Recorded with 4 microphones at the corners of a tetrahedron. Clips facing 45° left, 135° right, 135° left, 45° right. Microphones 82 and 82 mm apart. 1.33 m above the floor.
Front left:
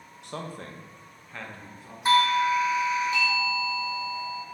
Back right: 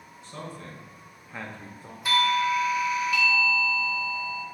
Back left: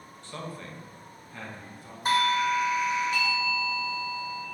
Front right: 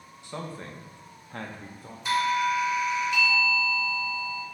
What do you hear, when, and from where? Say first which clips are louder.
0.2 s a man speaking: front left 2 dB, front right 2 dB; 30° left, 0.8 m; by 1.9 s 90° right, 0.7 m
2.0 s a doorbell: front left 2 dB, even; 100° left, 0.6 m